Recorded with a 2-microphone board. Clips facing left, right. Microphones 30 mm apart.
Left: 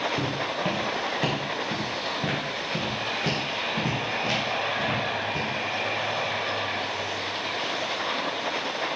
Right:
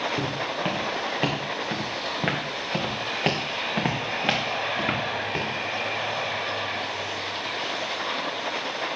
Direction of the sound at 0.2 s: 15° right (ahead or behind).